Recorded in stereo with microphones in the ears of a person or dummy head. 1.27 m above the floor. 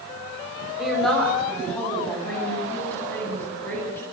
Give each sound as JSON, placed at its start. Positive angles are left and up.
{"t": 0.8, "sound": "a woman speaking", "side_deg": 0, "distance_m": 6.5}